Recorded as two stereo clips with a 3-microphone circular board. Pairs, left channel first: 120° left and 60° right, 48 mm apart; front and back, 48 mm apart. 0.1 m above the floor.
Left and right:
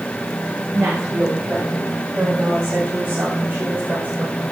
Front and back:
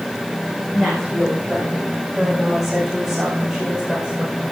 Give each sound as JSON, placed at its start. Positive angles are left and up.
{"t": 0.7, "sound": "a woman speaking", "azimuth_deg": -80, "distance_m": 6.0}